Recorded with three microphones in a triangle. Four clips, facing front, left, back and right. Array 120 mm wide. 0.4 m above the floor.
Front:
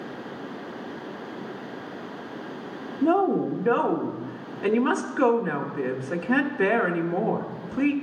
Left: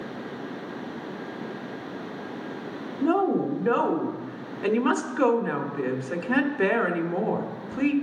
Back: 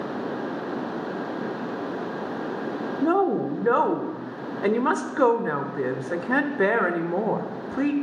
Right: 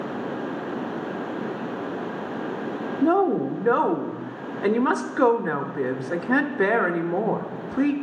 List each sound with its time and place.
3.0 s a woman speaking: 135° right, 0.8 m